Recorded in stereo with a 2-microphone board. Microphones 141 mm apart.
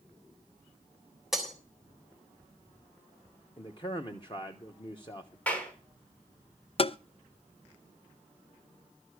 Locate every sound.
1.3 s breaking glass: 5° right (ahead or behind), 3.5 m
3.6 s a man speaking: 35° left (ahead or behind), 1.1 m
5.5 s a clap: 10° left (ahead or behind), 3.5 m
6.8 s tapping: 40° left (ahead or behind), 0.5 m